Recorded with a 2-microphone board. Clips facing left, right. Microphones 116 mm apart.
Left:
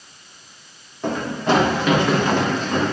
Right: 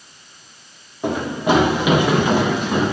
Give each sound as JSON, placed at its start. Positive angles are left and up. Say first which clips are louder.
{"t": 1.0, "sound": "running footsteps", "louder": "right 2 dB", "side_deg": -10, "distance_m": 4.0}